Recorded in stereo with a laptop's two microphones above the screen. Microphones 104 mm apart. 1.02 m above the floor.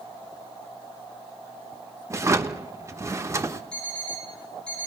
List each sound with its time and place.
2.1 s a drawer: 30° right (ahead or behind), 1.0 m
3.7 s an alarm clock: 10° left (ahead or behind), 6.5 m